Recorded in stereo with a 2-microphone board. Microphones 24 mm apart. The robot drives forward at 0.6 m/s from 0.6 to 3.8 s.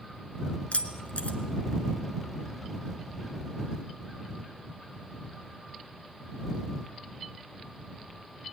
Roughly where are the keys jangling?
Left.